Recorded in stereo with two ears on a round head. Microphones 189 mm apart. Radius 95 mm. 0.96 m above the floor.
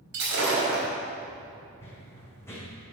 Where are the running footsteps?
10° left (ahead or behind), 2.5 m.